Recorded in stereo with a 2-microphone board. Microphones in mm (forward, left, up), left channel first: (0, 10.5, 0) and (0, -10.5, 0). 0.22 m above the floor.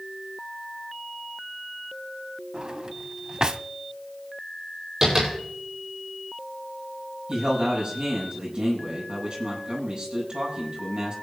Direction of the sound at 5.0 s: 20° right (ahead or behind).